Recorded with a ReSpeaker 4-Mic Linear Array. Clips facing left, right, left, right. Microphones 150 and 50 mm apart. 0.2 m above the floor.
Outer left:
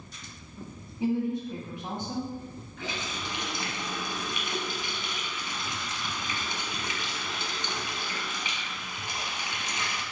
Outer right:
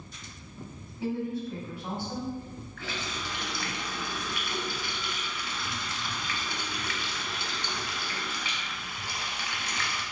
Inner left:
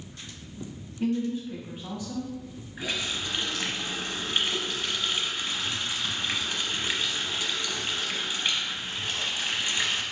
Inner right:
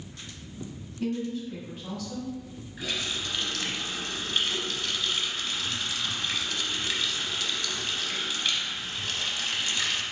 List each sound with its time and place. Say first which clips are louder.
1.0 s a woman speaking: outer left 4 dB, inner left 3 dB; 20° left (ahead or behind), 1.1 m
2.8 s a running tap: outer left 2 dB, inner left 1 dB; 20° left (ahead or behind), 0.7 m